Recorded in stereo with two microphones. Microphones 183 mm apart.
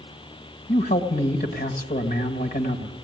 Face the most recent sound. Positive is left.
turn(degrees=55)  # may be behind; listen again after turning